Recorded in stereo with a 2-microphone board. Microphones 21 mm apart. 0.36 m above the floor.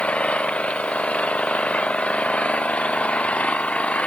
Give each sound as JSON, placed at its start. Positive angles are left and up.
{"t": 0.0, "sound": "an engine running", "side_deg": 70}